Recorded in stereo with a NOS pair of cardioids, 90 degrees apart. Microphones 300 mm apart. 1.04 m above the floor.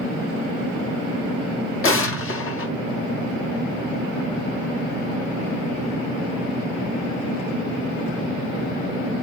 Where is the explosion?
45° left, 1.2 m.